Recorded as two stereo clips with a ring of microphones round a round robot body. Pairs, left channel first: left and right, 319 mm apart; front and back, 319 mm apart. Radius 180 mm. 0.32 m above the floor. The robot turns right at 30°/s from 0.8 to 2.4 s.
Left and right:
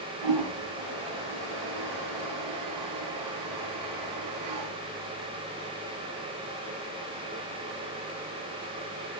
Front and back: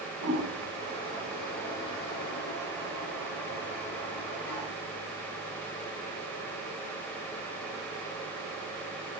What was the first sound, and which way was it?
A toilet flushing, 110° right.